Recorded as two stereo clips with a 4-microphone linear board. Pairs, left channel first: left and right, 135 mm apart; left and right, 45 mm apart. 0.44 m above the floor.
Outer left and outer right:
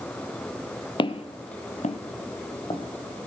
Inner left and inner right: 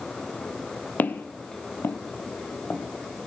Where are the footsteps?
40° left (ahead or behind), 0.8 m; by 3.3 s 30° left (ahead or behind), 1.9 m.